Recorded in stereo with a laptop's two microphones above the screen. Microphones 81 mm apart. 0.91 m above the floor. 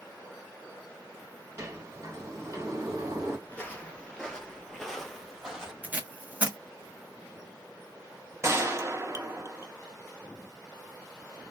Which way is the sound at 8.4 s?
35° right (ahead or behind).